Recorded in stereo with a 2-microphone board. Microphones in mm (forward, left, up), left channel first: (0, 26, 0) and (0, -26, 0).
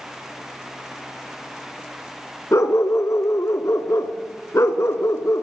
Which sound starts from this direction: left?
A dog barking, at 2.5 s.